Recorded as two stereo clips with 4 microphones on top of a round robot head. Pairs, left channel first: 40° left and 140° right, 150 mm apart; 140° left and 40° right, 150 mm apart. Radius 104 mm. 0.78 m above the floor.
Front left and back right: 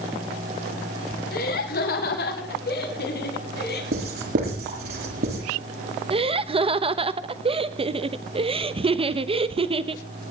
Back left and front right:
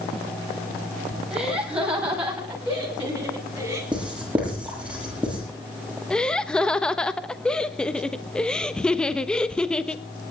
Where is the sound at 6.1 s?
140° right, 1.1 m.